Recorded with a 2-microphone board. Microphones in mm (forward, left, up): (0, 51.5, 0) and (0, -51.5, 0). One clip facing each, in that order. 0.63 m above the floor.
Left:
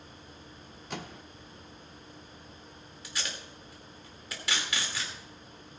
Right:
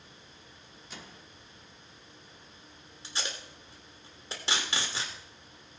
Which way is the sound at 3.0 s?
25° right (ahead or behind).